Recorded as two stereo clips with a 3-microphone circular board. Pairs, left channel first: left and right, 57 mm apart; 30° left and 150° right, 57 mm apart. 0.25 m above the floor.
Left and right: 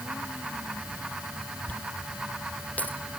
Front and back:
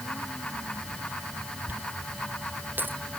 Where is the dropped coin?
155° left.